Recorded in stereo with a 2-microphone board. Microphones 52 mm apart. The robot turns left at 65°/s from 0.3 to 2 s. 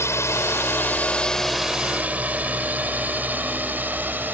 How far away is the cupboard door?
No cupboard door in this recording.